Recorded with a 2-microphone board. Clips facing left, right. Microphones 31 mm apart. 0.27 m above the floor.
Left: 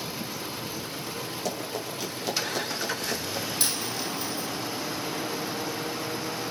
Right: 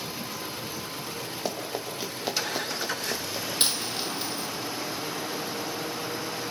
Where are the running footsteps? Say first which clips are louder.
Right 1 dB; 25° right (ahead or behind), 5.5 m; by 3.5 s 15° right (ahead or behind), 6 m.